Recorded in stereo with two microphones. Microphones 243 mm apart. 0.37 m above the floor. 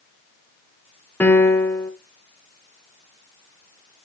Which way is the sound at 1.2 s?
10° left (ahead or behind).